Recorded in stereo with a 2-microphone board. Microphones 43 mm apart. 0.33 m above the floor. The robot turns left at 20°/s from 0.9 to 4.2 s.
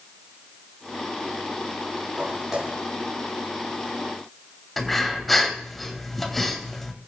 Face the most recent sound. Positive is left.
turn(degrees=0)  # may be behind; listen again after turning